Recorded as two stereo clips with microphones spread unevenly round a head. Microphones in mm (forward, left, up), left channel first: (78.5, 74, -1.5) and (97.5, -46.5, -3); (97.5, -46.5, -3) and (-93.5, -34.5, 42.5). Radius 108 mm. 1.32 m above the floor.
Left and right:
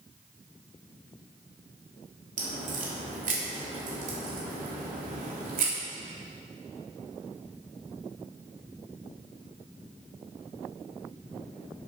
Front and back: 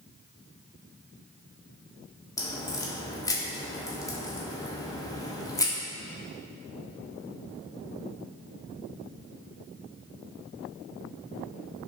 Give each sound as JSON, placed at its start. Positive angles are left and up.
{"t": 2.4, "sound": "a crack", "azimuth_deg": -80, "distance_m": 2.5}